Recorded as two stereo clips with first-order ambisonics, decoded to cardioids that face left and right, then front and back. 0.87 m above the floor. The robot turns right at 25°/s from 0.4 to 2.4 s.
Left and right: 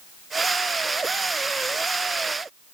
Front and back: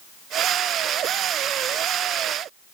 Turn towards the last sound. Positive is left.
No sound to turn to.